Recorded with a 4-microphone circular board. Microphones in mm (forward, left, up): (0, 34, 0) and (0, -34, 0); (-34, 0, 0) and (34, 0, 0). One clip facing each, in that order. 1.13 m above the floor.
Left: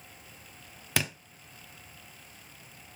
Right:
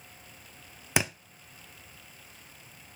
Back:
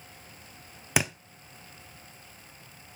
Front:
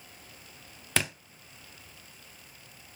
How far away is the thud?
About 0.7 m.